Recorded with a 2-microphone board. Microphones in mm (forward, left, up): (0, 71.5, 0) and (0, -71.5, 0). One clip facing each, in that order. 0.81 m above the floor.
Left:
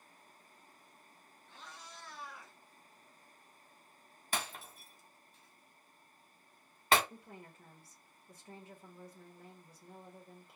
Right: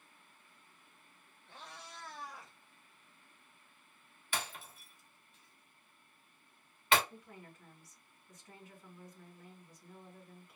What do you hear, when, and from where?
1.5 s a cat meowing: 60° right (ahead or behind), 1.0 m; by 2.5 s 25° right (ahead or behind), 1.0 m
4.3 s breaking glass: 40° left (ahead or behind), 1.1 m
7.1 s a woman speaking: 30° left (ahead or behind), 0.9 m